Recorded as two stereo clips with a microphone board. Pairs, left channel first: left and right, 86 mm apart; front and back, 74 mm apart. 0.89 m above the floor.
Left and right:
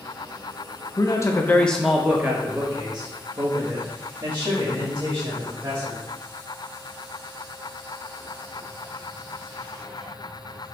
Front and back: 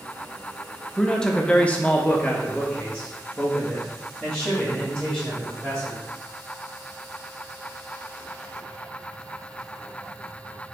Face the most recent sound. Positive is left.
turn(degrees=-75)